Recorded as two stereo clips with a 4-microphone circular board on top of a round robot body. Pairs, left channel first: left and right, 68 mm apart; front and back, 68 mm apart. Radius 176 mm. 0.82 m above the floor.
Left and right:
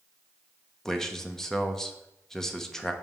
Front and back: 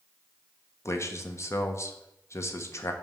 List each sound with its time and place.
0.8 s a man speaking: 10° left, 1.2 m